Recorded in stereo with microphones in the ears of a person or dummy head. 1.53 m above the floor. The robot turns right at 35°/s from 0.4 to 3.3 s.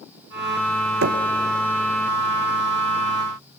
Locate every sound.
1.0 s knocking: 60° right (ahead or behind), 1.0 m; by 1.2 s 65° right (ahead or behind), 1.0 m